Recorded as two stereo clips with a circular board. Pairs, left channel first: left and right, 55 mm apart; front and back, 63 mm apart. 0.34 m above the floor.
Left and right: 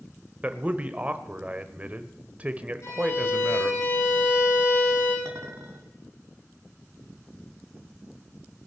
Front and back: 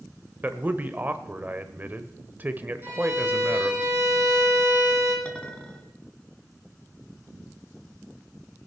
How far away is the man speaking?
About 1.0 m.